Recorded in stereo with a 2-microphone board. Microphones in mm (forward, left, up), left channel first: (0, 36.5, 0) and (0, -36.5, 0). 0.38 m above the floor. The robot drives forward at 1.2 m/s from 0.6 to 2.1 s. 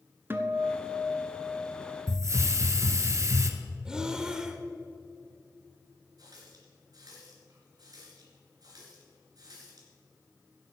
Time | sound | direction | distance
0.3 | a guitar | 30° right (ahead or behind) | 1.0 m
2.1 | a hiss | 45° right (ahead or behind) | 1.0 m
3.9 | breathing | 10° right (ahead or behind) | 0.9 m
6.2 | a running tap | 60° right (ahead or behind) | 3 m